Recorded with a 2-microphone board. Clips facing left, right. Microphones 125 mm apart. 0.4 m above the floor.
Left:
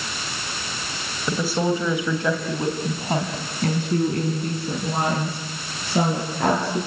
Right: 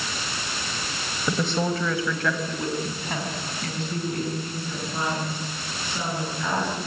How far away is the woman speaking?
About 2.5 m.